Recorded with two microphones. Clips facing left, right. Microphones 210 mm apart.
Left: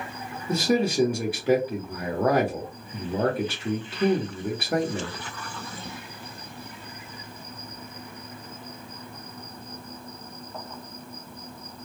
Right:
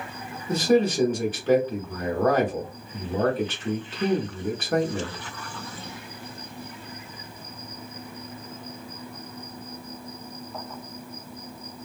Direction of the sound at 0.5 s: 10° left (ahead or behind).